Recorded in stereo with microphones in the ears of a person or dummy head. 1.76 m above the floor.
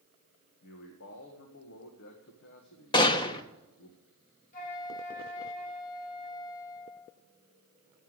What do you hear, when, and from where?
0.6 s a man speaking: 60° left (ahead or behind), 1.7 m
2.9 s a gunshot: 20° left (ahead or behind), 1.3 m
4.5 s a flute: 40° left (ahead or behind), 2 m